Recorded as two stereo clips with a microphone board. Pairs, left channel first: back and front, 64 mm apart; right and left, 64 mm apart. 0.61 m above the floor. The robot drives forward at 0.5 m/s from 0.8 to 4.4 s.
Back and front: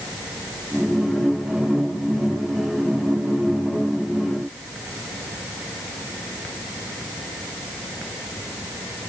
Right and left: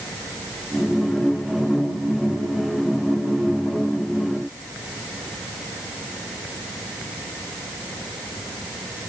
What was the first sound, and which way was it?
Only background noise.